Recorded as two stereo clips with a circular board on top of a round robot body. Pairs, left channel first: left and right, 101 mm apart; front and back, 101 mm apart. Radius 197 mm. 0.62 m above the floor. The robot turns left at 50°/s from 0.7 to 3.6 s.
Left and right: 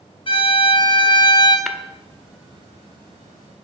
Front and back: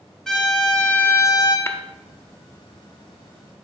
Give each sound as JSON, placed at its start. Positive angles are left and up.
{"t": 0.3, "sound": "a violin", "azimuth_deg": 85, "distance_m": 1.3}
{"t": 1.7, "sound": "tapping", "azimuth_deg": 0, "distance_m": 0.8}